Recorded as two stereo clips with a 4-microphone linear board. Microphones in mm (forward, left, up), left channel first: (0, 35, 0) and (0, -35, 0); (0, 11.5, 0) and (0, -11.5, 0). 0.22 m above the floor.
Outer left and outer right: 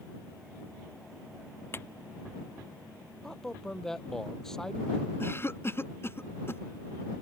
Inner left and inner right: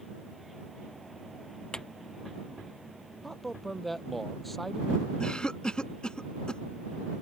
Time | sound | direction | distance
1.7 | a clap | 35° left (ahead or behind) | ?
3.2 | a man speaking | 5° left (ahead or behind) | ?
5.2 | a cough | 35° left (ahead or behind) | ?